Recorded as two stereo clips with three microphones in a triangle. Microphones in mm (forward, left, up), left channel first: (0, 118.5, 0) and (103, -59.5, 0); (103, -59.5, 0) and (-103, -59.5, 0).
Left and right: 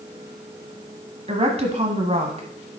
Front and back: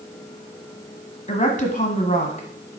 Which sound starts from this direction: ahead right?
A woman speaking, at 1.3 s.